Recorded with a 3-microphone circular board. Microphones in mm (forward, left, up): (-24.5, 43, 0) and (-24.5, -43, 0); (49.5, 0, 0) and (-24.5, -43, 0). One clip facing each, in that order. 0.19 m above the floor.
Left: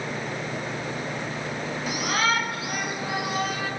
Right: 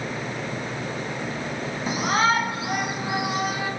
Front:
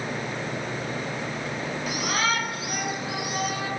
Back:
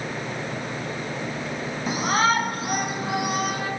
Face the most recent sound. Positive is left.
turn(degrees=-160)